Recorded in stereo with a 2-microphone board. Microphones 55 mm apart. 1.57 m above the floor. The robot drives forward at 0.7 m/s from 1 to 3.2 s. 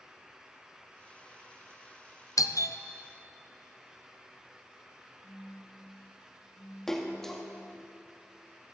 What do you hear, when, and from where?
2.4 s a doorbell: 85° left, 0.5 m; by 2.8 s 55° left (ahead or behind), 0.6 m
5.2 s a phone buzzing: 40° left (ahead or behind), 2.5 m
6.9 s a splash: 10° left (ahead or behind), 1.1 m